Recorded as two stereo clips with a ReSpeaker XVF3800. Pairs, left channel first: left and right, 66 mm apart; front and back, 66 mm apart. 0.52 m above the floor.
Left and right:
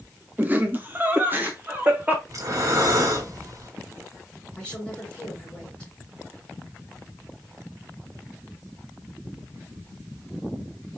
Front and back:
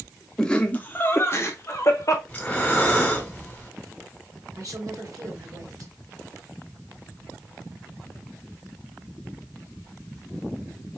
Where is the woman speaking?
165° left, 3 m.